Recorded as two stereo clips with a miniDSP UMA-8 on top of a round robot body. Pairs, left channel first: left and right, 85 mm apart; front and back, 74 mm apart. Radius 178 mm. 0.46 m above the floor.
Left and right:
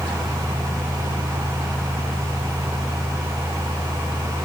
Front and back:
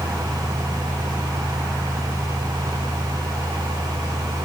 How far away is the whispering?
No whispering in this recording.